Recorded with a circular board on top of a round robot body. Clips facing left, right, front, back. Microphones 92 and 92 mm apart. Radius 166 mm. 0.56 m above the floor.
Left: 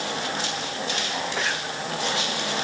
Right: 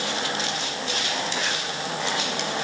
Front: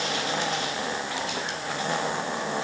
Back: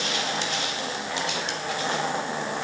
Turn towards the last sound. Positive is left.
No sound to turn to.